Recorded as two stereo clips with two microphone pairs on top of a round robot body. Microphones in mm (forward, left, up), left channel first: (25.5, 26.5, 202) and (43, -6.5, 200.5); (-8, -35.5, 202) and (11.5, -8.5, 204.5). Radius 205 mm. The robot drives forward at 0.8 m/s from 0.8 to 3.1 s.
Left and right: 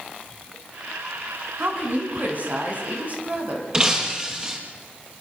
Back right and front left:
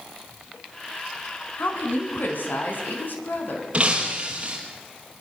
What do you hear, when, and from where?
1.6 s a woman speaking: 100° right, 5 m; by 3.6 s 110° right, 5.5 m
3.7 s breaking glass: straight ahead, 4.5 m